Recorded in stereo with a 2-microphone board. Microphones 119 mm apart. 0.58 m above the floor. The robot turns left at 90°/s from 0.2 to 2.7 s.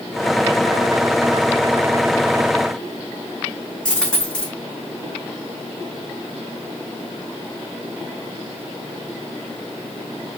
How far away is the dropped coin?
About 6 m.